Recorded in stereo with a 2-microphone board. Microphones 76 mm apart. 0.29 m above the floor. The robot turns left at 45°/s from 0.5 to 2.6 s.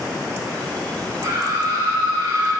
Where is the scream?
85° right, 3.5 m; by 2.5 s 145° right, 3.5 m.